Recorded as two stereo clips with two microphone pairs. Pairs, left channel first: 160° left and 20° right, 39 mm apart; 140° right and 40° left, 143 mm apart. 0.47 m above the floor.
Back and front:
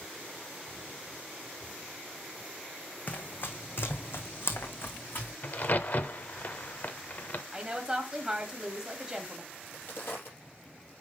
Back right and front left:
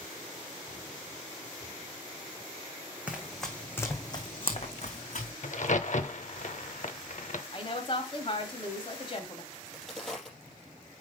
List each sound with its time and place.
3.1 s running footsteps: 120° left, 1.3 m; by 5.3 s 165° right, 1.8 m
5.4 s a crack: 160° right, 0.7 m
7.5 s a woman speaking: 90° right, 2 m
9.5 s a crack: 135° left, 4 m